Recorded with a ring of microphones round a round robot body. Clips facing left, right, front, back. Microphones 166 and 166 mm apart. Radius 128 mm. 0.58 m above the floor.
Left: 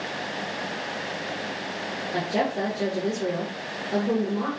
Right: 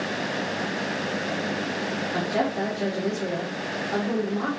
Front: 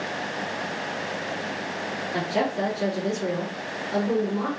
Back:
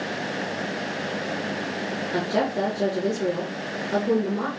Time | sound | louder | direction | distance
2.1 | a woman speaking | left 1 dB, back 1 dB | 150° left | 1.7 m